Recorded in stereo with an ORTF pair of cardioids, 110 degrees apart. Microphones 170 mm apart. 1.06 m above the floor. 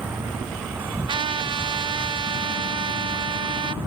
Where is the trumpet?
30° right.